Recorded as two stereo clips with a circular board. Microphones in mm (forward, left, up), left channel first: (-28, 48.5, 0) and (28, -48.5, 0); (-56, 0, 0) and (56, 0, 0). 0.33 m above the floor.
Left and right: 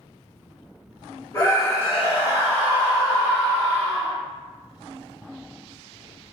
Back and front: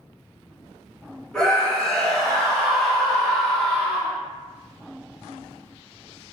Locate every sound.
1.3 s a scream: 100° left, 1.5 m